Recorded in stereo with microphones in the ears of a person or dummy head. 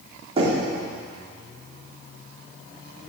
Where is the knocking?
35° right (ahead or behind), 4 m.